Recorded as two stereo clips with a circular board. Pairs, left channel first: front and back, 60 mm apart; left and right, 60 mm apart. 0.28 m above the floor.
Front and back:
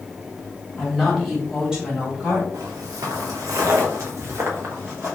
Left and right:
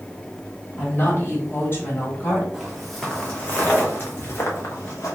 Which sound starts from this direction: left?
A woman speaking, at 0.8 s.